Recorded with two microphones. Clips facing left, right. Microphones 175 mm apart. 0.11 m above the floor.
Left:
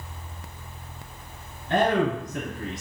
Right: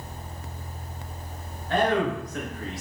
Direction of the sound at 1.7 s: 20° left (ahead or behind).